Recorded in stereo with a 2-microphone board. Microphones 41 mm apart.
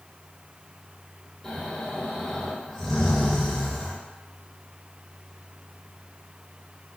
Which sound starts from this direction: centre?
Snoring, at 1.4 s.